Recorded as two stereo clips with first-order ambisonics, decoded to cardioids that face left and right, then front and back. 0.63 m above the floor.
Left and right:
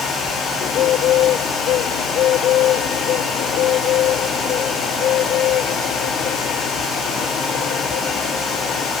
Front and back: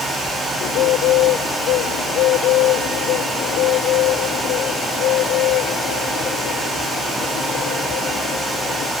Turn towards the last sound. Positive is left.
turn(degrees=40)